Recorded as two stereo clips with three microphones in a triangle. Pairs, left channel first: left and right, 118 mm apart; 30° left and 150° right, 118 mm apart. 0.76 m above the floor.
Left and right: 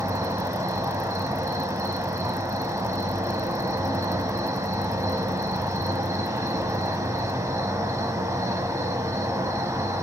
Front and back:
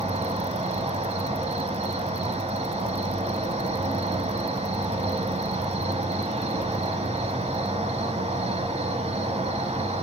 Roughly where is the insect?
Behind right.